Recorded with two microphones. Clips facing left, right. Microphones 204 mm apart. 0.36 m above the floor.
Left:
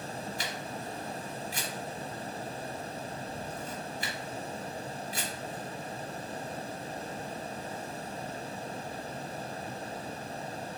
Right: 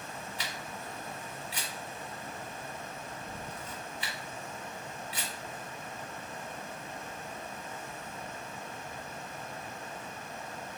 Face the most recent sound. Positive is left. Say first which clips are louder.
# left 4 dB
turn(degrees=45)  # may be behind; listen again after turning